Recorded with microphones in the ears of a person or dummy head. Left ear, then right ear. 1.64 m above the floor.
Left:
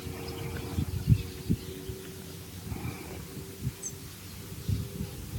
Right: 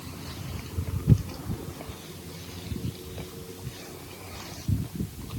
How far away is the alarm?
No alarm in this recording.